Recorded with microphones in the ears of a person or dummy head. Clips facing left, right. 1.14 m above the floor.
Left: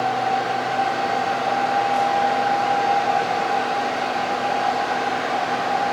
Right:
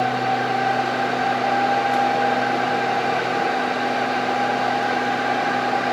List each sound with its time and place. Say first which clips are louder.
0.0 s a fan: even; 30° right (ahead or behind), 0.8 m